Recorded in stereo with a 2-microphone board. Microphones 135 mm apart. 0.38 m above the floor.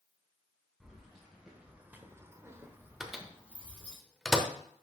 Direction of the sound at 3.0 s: 5° right (ahead or behind).